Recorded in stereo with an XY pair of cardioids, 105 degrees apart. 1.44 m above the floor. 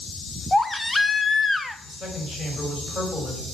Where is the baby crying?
15° left, 0.7 m.